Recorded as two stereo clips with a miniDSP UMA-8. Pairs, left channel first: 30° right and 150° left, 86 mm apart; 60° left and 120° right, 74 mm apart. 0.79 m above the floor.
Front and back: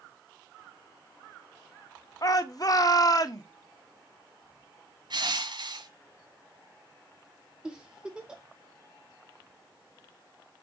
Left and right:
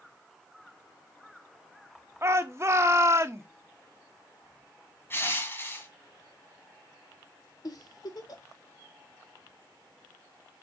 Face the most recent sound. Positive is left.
turn(degrees=70)